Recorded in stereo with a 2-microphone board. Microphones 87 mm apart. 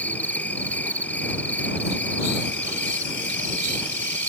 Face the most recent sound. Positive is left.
turn(degrees=20)  # may be behind; listen again after turning